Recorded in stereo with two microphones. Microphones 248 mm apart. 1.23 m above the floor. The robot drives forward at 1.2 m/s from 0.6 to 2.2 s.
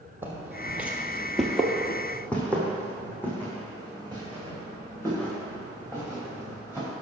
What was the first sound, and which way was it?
Footsteps, 10° right (ahead or behind).